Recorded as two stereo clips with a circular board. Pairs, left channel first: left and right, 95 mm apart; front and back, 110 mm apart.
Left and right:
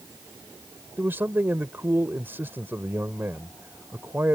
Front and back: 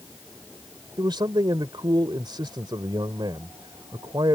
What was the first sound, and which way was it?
A man speaking, 150° right.